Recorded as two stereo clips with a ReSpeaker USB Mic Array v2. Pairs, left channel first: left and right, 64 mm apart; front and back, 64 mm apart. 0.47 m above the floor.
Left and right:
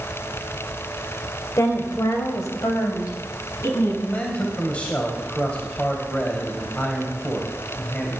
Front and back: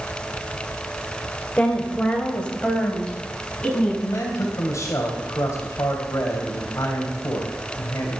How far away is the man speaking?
About 3 m.